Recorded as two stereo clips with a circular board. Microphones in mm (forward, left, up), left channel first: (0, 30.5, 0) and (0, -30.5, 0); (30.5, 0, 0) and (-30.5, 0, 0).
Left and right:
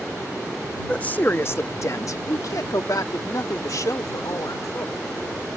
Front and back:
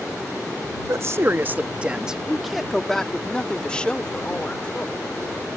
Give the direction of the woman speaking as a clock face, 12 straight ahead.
7 o'clock.